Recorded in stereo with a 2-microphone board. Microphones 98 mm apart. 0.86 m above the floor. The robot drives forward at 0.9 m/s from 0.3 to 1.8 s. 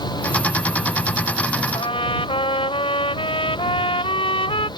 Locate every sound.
1.7 s a trumpet: 65° left (ahead or behind); by 4.7 s 70° left (ahead or behind)